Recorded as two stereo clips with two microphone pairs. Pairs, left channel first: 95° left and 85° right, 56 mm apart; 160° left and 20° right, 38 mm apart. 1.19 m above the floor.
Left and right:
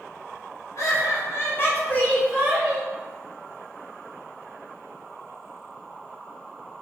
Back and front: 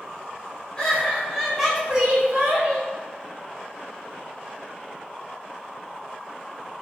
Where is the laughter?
95° left, 1.3 m; by 2.9 s 20° right, 0.9 m.